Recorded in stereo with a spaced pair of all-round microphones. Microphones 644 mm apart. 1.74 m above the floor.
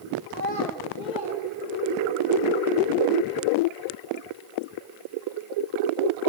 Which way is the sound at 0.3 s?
30° left (ahead or behind).